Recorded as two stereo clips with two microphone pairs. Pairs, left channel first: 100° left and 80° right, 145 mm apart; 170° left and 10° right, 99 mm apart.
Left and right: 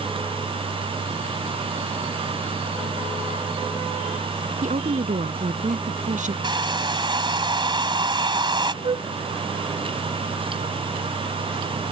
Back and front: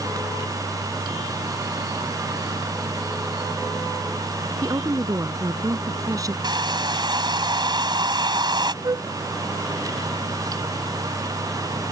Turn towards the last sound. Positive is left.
turn(degrees=-45)